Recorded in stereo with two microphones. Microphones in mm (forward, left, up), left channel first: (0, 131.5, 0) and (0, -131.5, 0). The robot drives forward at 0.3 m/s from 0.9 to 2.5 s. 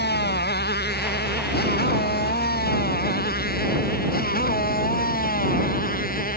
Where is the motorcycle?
40° left (ahead or behind); by 6.4 s 35° left (ahead or behind).